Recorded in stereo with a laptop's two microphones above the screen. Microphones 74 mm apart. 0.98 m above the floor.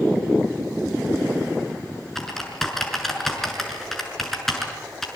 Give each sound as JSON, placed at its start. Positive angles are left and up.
{"t": 2.1, "sound": "typing on a keyboard", "side_deg": 0, "distance_m": 6.0}